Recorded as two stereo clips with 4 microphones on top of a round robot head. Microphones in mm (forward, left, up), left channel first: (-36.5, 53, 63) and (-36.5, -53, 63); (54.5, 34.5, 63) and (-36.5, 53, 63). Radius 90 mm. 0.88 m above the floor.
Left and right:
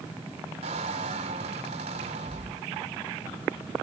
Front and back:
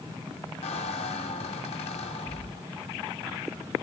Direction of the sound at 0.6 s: 45° right.